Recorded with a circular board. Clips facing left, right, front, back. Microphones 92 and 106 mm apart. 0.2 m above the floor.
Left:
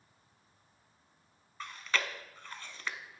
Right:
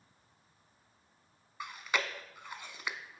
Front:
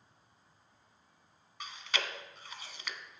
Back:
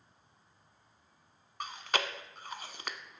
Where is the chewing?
165° right, 0.7 m.